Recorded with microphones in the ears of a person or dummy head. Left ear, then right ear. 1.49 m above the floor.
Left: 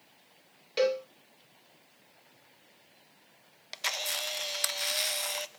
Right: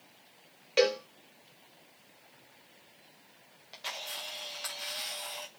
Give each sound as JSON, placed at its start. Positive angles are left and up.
{"t": 0.8, "sound": "a cowbell", "side_deg": -15, "distance_m": 1.1}
{"t": 3.7, "sound": "a camera shutter", "side_deg": 60, "distance_m": 0.6}